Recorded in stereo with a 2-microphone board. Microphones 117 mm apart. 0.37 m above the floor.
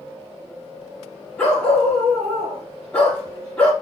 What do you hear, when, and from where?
1.4 s a dog barking: 10° left (ahead or behind), 4 m